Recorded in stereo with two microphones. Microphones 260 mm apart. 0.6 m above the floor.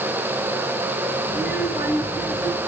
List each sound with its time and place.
1.3 s a child speaking: 40° left (ahead or behind), 5 m; by 2.6 s 35° left (ahead or behind), 4 m